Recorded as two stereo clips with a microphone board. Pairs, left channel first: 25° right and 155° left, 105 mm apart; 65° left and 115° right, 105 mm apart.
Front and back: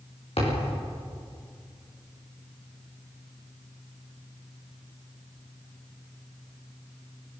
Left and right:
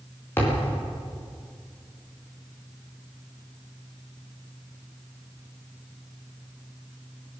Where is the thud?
Straight ahead, 9 m.